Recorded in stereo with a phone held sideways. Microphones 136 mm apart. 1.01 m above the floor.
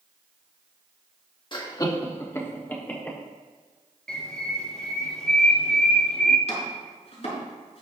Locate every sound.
1.5 s laughter: 35° left (ahead or behind), 1.8 m; by 3.2 s 10° left (ahead or behind), 3.5 m
4.1 s a bird: 5° left (ahead or behind), 2 m
6.5 s chopping: 55° left (ahead or behind), 4.5 m